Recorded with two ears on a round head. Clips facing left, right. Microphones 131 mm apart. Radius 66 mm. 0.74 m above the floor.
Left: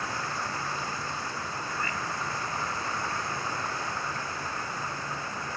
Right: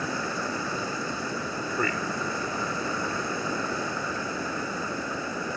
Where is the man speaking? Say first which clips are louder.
Right 7 dB; 50° right (ahead or behind).